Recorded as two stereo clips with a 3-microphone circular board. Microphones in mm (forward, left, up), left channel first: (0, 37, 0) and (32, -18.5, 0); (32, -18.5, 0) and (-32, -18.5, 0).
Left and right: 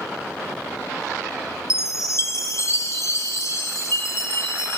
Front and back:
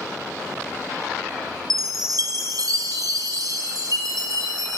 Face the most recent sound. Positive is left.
turn(degrees=160)